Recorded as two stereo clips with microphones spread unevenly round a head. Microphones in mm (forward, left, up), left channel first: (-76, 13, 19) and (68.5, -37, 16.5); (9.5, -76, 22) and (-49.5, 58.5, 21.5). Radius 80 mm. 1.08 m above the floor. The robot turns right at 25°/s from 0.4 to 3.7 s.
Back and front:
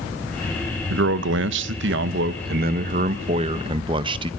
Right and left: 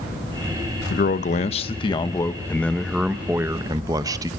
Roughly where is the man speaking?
Ahead right.